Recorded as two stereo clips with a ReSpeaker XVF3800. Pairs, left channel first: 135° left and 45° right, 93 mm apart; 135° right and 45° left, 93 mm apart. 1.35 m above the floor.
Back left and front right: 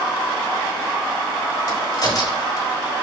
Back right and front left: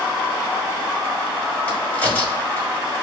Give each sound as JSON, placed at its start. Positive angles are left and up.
{"t": 1.7, "sound": "a crack", "azimuth_deg": 155, "distance_m": 1.8}